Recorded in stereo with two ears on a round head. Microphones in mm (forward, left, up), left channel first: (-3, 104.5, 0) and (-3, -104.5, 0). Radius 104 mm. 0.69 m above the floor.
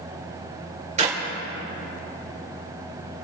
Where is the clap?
30° right (ahead or behind), 2 m.